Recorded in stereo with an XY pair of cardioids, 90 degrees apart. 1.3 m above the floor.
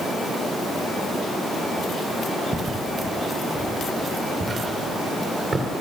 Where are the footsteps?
40° right, 7 m; by 5.7 s 50° right, 8 m.